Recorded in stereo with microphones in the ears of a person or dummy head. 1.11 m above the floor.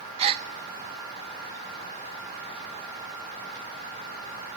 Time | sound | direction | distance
0.2 | a gasp | 35° right (ahead or behind) | 1.3 m